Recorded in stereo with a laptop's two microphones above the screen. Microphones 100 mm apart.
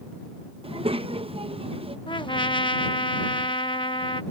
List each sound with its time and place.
0.6 s a child speaking: 70° right (ahead or behind)
2.1 s a trumpet: 55° left (ahead or behind)